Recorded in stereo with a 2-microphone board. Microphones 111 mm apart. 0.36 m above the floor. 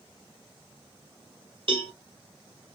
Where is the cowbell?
55° right (ahead or behind), 1.6 m.